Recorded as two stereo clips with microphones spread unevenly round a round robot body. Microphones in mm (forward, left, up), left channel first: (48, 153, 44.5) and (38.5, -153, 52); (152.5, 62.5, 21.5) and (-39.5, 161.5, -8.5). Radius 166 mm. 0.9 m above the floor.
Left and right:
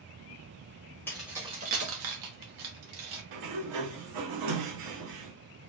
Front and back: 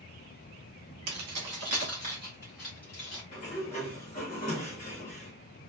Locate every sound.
1.1 s keys jangling: 170° left, 0.7 m; by 3.2 s 105° right, 1.1 m
3.3 s a sliding door: 100° right, 0.8 m